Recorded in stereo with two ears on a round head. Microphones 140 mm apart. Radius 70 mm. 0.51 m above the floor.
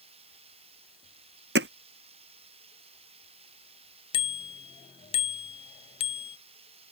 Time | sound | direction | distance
0.0 | running water | 40° right (ahead or behind) | ?
1.6 | hammering | 80° right | ?
4.1 | a bicycle bell | 35° left (ahead or behind) | ?